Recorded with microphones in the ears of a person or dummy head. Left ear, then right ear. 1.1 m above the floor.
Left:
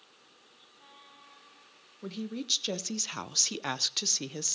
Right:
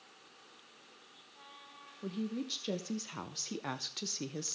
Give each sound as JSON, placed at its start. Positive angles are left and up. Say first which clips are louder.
{"t": 2.0, "sound": "a woman speaking", "louder": "left 4 dB", "side_deg": 25, "distance_m": 1.1}